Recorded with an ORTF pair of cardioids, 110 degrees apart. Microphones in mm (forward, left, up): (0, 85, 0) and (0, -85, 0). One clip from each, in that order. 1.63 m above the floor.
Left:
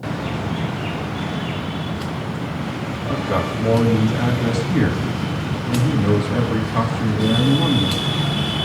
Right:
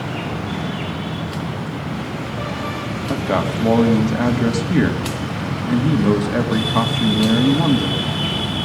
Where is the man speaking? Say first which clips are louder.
Right 2 dB; 30° right, 3.5 m.